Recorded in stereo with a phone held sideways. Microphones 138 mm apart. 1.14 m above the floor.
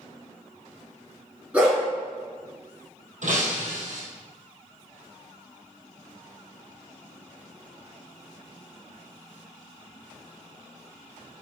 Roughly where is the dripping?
No dripping in this recording.